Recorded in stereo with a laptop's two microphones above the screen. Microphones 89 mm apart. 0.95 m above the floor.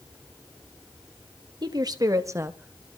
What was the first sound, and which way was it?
A woman speaking, 55° right (ahead or behind).